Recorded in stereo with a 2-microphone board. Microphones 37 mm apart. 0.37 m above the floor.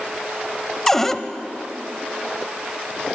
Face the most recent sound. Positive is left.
turn(degrees=10)  # may be behind; listen again after turning